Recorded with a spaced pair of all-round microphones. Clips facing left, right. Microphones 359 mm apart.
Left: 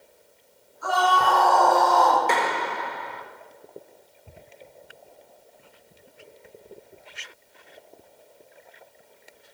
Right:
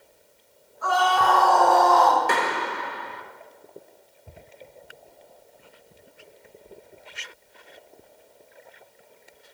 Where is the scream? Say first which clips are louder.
Right 1 dB; 75° right (ahead or behind), 9 m.